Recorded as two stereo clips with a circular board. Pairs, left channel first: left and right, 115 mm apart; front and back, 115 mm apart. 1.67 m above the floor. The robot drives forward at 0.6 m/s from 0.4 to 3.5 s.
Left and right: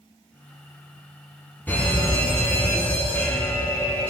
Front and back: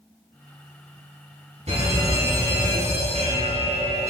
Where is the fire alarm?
165° left, 5 m.